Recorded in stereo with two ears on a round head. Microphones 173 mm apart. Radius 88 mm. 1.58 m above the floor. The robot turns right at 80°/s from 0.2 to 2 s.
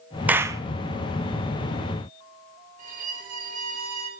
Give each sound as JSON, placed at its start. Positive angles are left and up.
{"t": 0.3, "sound": "a clap", "side_deg": -10, "distance_m": 0.5}
{"t": 2.8, "sound": "a violin", "side_deg": -40, "distance_m": 1.9}